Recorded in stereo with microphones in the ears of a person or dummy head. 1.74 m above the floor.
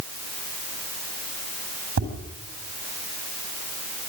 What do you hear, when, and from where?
2.0 s tapping: 45° right (ahead or behind), 8 m